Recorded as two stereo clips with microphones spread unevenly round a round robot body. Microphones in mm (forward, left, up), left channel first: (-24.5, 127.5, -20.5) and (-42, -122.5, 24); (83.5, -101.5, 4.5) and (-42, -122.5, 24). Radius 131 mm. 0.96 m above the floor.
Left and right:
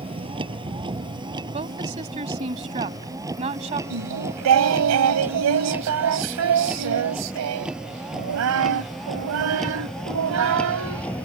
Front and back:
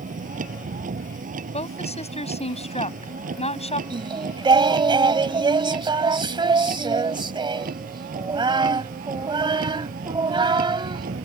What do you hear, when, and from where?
0.0 s a vehicle: 165° right; by 11.2 s 170° left
1.5 s a woman speaking: 25° right
3.9 s singing: 120° right